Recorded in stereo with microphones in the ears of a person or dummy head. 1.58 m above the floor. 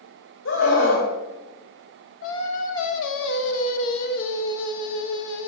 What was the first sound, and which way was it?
A scream, 80° left.